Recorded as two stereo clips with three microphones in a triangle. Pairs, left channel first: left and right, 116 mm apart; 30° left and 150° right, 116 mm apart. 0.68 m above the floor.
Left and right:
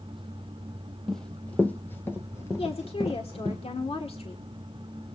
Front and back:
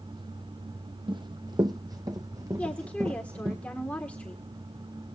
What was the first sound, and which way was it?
Running footsteps, 175° left.